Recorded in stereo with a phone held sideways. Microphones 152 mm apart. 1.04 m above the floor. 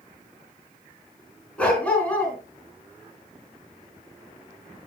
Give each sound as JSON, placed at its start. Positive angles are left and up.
{"t": 1.6, "sound": "a dog barking", "side_deg": 10, "distance_m": 3.5}